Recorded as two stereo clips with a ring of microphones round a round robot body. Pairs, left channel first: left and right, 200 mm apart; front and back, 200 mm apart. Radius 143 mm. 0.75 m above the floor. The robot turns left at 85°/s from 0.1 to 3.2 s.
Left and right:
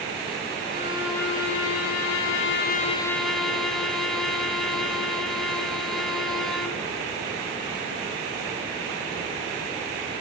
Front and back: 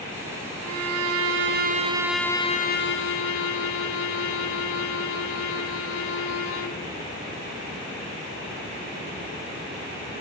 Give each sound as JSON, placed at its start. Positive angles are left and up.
{"t": 0.6, "sound": "a violin", "azimuth_deg": -140, "distance_m": 2.0}